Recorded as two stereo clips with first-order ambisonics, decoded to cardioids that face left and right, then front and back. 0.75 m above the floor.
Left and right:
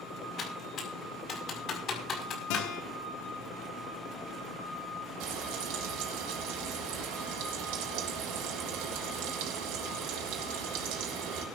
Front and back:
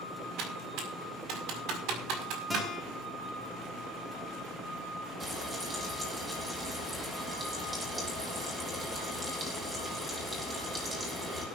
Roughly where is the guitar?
Left.